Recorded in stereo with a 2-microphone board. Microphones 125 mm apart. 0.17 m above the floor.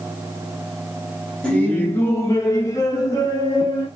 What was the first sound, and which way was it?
Laughter, 10° left (ahead or behind).